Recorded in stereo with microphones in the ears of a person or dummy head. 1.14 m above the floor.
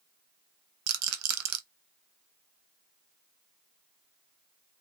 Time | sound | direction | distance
0.9 | a rattle | 85° right | 0.8 m